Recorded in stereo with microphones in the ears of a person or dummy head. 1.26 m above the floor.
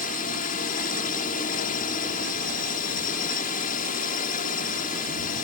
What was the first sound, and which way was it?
A drone, 40° left (ahead or behind).